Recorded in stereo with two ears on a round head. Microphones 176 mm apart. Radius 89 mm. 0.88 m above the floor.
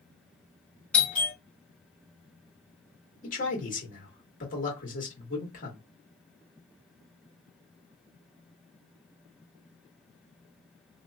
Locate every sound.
0.9 s a doorbell: 5° left (ahead or behind), 1.0 m
3.2 s a man speaking: 45° left (ahead or behind), 1.6 m